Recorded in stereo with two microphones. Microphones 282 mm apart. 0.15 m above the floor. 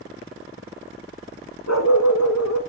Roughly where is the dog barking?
Left.